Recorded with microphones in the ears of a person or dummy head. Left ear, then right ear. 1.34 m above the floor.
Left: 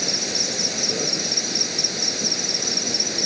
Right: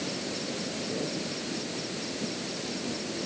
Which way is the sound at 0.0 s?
60° left (ahead or behind).